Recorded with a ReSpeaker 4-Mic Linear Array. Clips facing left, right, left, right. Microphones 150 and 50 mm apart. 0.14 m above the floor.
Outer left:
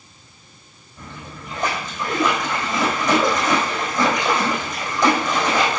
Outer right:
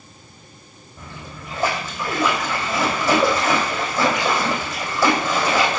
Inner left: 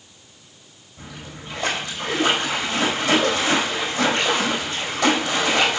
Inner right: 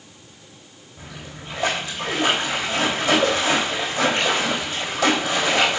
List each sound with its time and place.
1.0 s a splash: 5° right (ahead or behind), 3.5 m